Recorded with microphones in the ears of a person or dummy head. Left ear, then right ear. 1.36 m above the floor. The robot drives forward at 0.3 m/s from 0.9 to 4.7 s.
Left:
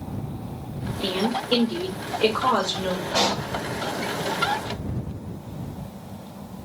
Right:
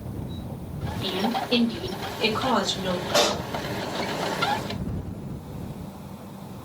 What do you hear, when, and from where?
1.0 s a woman speaking: 55° left (ahead or behind), 0.7 m; by 3.0 s 30° left (ahead or behind), 1.1 m
3.1 s a pop: 40° right (ahead or behind), 0.9 m; by 3.5 s 35° right (ahead or behind), 1.0 m